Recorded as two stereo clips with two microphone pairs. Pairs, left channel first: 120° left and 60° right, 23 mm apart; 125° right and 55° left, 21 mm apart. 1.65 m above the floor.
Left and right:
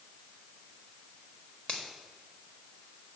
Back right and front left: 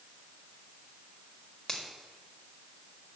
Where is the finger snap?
160° left, 1.5 m.